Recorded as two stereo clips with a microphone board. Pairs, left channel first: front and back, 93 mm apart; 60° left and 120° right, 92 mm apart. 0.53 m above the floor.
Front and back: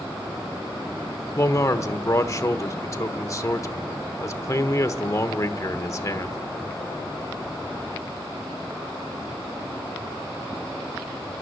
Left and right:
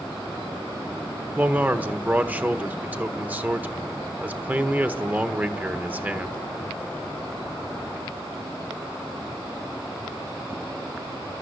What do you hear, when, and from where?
1.4 s a man speaking: 50° right, 1.1 m